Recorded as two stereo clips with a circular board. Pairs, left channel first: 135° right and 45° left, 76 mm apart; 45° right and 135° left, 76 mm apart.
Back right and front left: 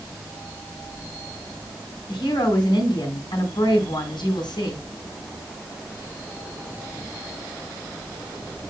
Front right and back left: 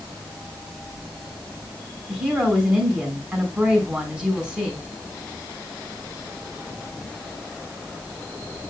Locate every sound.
2.1 s a woman speaking: 150° right, 4.5 m